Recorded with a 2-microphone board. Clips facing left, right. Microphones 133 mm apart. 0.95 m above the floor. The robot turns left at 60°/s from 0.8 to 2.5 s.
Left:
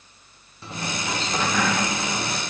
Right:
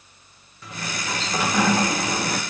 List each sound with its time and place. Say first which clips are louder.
0.6 s a sliding door: left 2 dB; 30° left, 0.6 m; by 2.4 s 70° right, 0.6 m